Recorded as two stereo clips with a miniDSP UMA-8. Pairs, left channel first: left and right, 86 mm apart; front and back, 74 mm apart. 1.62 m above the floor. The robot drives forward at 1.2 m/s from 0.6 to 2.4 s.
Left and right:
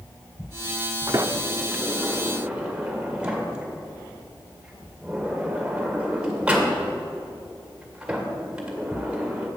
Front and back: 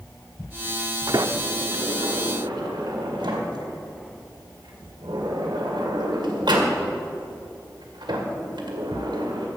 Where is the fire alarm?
I don't hear a fire alarm.